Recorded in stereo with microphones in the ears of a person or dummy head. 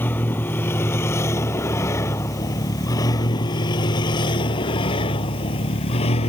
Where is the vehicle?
10° left (ahead or behind); by 6.3 s 30° left (ahead or behind).